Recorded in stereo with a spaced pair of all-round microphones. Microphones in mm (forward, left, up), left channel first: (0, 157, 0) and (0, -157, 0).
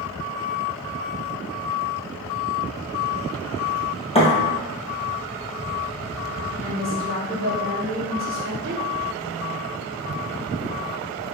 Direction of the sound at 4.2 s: 20° left (ahead or behind).